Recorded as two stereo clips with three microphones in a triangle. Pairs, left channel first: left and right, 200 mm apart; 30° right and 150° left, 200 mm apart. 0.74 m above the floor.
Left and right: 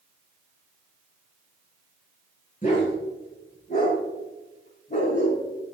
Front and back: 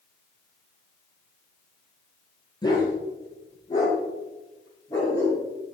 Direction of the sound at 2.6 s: 40° left.